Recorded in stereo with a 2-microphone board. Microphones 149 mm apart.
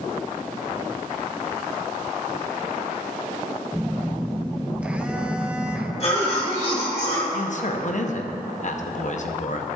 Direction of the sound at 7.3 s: 55° left (ahead or behind).